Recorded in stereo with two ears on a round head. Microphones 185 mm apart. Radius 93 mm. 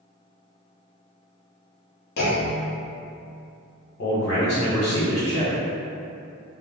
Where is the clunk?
55° left (ahead or behind), 0.6 m.